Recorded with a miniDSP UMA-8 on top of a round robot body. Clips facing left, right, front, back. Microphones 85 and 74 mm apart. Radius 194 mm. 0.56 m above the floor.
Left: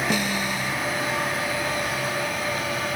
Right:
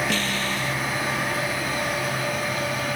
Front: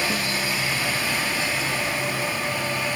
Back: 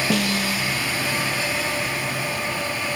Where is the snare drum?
165° left.